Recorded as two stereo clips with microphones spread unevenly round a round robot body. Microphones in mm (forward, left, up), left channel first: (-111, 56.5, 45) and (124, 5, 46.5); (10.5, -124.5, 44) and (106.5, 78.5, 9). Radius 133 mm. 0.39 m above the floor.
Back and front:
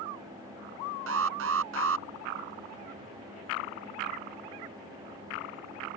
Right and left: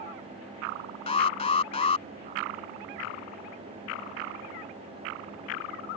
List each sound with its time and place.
1.1 s an alarm: 50° right